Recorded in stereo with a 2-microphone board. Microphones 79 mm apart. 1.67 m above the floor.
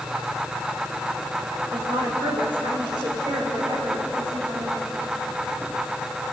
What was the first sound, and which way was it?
A woman speaking, 80° right.